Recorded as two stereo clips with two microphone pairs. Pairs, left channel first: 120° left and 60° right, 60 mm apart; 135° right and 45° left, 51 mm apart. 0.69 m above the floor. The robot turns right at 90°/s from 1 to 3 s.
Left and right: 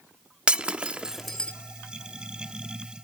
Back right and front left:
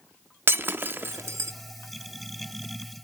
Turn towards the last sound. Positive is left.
turn(degrees=-170)